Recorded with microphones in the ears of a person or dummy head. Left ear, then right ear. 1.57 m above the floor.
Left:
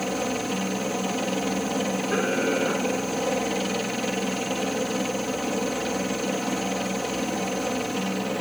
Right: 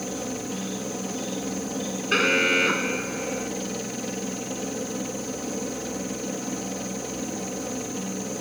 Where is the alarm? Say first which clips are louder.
Right 6 dB; 70° right (ahead or behind).